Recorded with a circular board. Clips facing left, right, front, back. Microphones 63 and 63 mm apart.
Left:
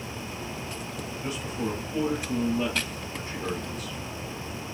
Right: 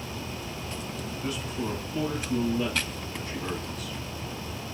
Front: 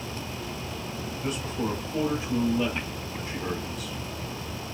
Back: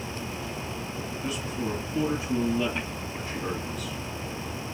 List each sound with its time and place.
1.2 s a man speaking: 20° left, 1.4 m; by 4.0 s 125° left, 1.1 m